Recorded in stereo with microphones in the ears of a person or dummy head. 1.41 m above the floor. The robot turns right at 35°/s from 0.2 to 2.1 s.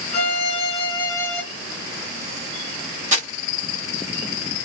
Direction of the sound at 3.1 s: 40° right (ahead or behind).